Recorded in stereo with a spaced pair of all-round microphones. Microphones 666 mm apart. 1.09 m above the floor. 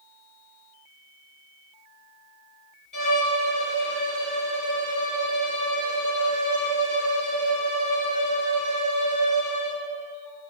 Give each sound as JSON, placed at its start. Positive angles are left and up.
{"t": 2.9, "sound": "a violin", "side_deg": 30, "distance_m": 3.5}